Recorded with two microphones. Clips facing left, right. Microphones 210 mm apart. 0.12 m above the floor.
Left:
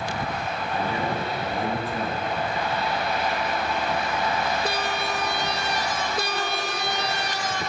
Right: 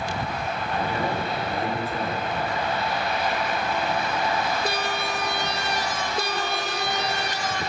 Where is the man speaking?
15° left (ahead or behind), 1.9 m.